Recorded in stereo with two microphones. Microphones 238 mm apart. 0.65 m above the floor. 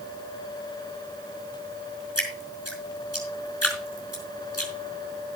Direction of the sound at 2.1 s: 80° left.